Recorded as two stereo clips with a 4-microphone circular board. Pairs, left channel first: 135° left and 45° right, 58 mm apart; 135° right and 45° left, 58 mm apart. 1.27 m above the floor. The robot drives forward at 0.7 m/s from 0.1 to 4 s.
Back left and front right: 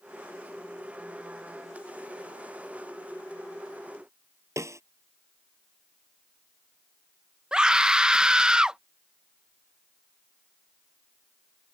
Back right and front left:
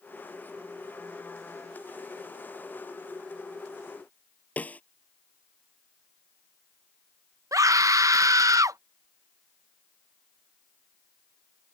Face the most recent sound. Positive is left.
turn(degrees=30)